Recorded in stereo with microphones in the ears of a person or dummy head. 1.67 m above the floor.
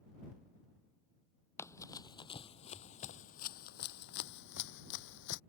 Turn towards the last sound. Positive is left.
turn(degrees=65)  # may be behind; listen again after turning